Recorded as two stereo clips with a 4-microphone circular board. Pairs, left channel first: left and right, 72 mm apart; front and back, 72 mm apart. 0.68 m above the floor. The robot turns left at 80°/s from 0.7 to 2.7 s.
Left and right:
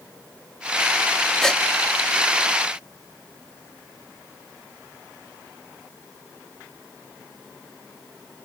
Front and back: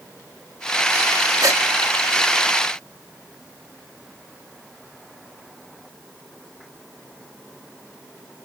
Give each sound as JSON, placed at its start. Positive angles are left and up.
{"t": 1.4, "sound": "a gasp", "azimuth_deg": 175}